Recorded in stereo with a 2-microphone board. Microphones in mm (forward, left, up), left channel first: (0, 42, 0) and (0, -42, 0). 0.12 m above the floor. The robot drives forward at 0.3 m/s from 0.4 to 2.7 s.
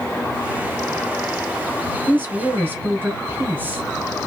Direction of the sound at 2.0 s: 25° right (ahead or behind).